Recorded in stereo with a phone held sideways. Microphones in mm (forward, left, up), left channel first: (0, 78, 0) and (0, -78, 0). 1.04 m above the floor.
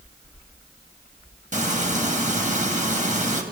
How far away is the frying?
About 3 m.